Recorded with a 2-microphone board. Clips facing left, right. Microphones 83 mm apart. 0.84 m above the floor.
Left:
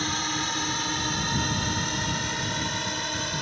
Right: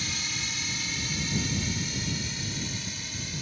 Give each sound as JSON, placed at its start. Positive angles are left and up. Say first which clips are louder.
{"t": 0.0, "sound": "a drone", "louder": "left 8 dB", "side_deg": 55}